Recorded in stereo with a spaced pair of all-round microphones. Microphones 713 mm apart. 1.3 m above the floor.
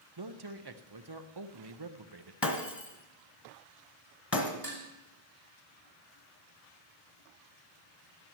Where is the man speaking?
35° right (ahead or behind), 0.8 m.